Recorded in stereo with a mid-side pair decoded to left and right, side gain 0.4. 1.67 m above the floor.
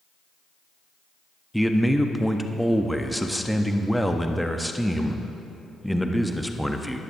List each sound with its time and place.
1.5 s a man speaking: straight ahead, 0.6 m